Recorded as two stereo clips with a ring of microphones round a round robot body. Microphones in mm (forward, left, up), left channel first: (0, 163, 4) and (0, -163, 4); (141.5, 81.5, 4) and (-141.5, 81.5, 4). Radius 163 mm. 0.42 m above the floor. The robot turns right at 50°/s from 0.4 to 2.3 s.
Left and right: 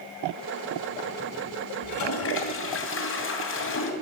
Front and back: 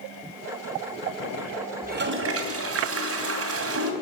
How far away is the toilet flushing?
About 2.5 m.